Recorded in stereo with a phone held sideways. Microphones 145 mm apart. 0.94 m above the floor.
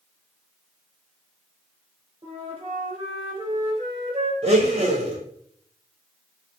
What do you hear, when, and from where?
2.2 s a flute: 40° right (ahead or behind), 3.5 m
4.4 s a blender: 50° right (ahead or behind), 5 m